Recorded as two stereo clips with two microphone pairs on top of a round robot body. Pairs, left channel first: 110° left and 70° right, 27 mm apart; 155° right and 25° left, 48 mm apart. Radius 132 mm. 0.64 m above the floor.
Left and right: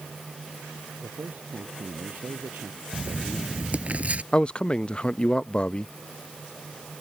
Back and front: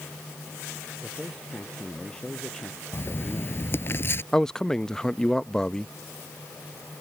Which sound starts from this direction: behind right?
Writing, at 2.9 s.